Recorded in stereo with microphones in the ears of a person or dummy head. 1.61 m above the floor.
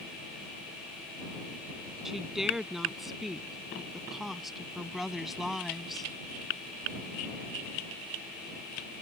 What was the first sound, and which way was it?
A woman speaking, centre (ahead or behind).